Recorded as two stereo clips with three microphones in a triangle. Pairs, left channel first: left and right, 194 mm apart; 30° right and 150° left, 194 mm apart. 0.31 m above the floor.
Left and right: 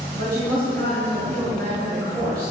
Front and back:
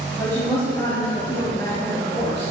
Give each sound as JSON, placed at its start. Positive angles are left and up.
{"t": 0.1, "sound": "a woman speaking", "azimuth_deg": -100, "distance_m": 2.5}